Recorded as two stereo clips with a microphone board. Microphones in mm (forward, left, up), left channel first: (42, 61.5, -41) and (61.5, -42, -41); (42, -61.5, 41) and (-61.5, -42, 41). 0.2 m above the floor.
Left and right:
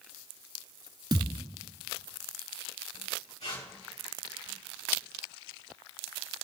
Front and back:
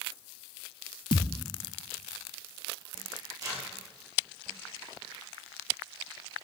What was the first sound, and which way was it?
A thud, 45° right.